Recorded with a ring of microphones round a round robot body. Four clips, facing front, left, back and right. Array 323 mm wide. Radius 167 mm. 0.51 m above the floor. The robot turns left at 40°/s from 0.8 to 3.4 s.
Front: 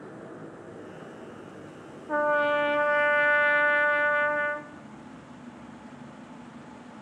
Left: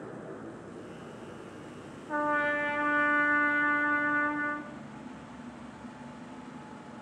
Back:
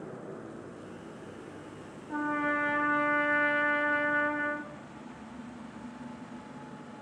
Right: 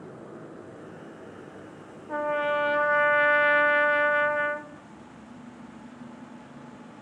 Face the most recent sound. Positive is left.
turn(degrees=-65)